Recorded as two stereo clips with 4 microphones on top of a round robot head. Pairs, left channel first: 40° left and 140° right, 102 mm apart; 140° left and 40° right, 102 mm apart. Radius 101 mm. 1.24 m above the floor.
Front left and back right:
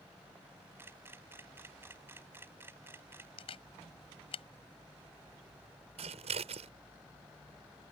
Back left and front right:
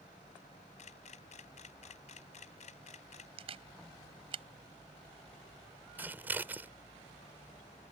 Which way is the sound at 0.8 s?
150° left.